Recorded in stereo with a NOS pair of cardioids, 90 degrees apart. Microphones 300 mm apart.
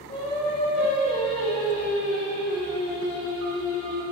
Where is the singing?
35° left, 1.8 m.